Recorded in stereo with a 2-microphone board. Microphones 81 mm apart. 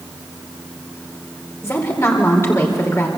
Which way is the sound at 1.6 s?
35° left (ahead or behind).